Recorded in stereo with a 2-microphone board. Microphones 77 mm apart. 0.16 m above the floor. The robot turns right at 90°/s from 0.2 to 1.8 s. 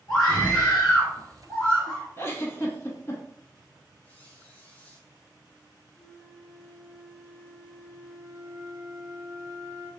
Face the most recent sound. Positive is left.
turn(degrees=-40)  # may be behind; listen again after turning